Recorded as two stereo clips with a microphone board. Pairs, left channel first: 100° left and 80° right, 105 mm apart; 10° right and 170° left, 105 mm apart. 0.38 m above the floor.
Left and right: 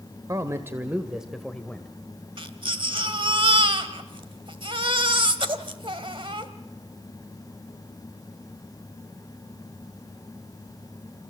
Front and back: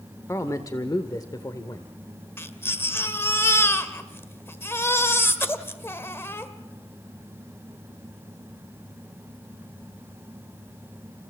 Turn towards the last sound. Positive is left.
turn(degrees=-75)